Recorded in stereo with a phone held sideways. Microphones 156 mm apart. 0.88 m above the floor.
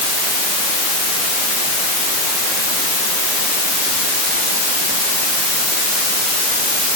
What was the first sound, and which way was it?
Only background noise.